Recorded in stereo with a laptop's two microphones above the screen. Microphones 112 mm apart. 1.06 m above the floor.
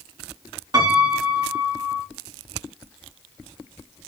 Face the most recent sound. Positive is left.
turn(degrees=-40)  # may be behind; listen again after turning